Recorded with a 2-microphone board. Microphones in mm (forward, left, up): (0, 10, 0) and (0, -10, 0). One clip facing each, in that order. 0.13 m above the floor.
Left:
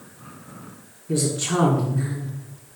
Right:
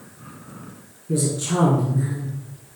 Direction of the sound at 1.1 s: 20° left (ahead or behind).